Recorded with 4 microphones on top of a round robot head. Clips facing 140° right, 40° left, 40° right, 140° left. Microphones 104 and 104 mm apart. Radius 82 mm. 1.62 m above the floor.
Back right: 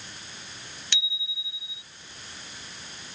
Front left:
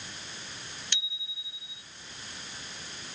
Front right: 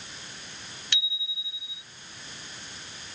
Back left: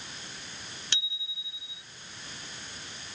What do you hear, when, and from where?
0.9 s a bicycle bell: 160° right